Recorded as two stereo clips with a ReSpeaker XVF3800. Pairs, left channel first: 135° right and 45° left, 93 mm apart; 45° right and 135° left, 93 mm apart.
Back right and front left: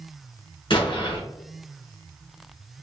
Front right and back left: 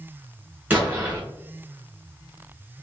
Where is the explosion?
150° right, 2 m.